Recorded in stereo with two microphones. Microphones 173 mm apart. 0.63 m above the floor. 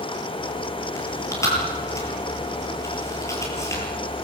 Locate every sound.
1.0 s chewing: 20° left (ahead or behind), 9 m